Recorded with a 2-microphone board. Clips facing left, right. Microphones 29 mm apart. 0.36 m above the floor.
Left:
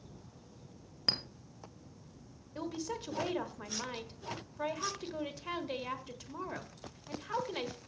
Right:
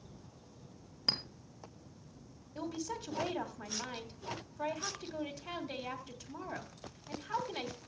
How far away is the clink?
About 1.2 m.